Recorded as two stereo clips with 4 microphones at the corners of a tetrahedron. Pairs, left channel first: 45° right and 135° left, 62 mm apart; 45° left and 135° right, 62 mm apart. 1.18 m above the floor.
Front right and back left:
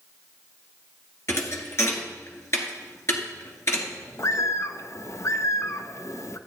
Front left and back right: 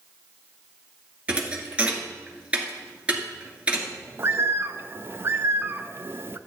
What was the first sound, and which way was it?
A thud, 70° right.